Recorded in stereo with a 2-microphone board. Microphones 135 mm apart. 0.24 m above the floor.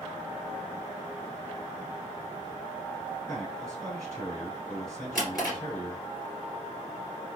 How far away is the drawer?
About 1.8 m.